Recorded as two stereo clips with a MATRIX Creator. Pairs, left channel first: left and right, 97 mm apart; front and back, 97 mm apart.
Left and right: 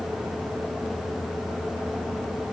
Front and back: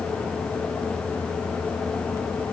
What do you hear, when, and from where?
Only background noise.